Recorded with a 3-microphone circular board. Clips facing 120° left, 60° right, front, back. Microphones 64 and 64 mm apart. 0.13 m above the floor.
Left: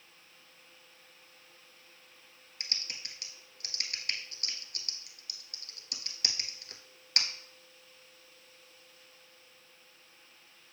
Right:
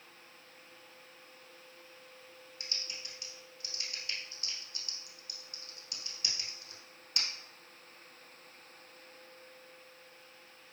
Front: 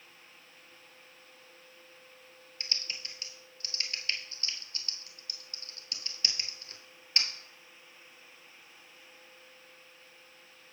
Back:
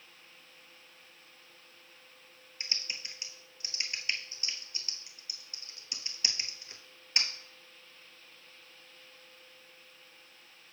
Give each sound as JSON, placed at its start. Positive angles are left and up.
{"t": 2.6, "sound": "typing on a keyboard", "azimuth_deg": 110, "distance_m": 0.9}